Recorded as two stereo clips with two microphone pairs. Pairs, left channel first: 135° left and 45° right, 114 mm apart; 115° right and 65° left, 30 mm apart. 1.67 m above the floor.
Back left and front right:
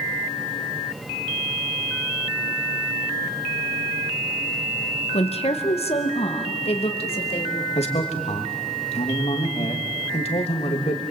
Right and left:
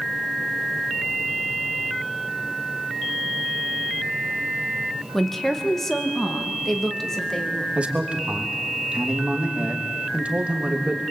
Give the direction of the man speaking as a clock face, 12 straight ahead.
8 o'clock.